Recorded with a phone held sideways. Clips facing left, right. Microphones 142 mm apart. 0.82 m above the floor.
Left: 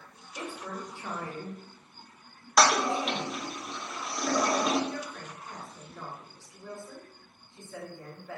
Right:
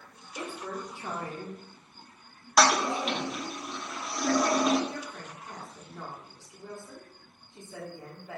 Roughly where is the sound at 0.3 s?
Centre.